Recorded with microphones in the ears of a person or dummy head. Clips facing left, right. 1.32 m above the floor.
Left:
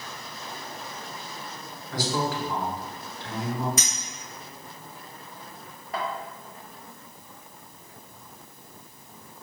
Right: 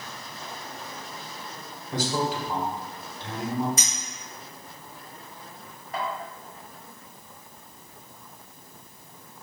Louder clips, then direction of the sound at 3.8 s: Left 2 dB; 45° left (ahead or behind).